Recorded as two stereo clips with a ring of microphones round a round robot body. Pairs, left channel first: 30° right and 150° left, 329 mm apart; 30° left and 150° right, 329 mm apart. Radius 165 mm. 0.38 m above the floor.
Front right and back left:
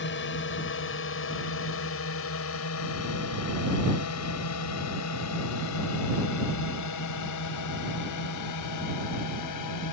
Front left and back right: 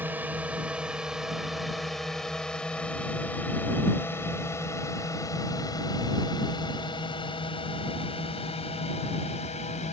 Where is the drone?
65° right; by 9.9 s 35° right.